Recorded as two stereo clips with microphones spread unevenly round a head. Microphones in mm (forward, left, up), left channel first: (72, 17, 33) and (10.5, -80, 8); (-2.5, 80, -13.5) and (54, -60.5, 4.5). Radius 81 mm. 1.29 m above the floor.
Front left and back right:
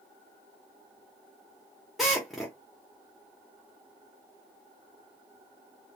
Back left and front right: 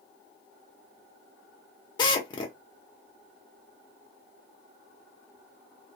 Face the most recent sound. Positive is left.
turn(degrees=120)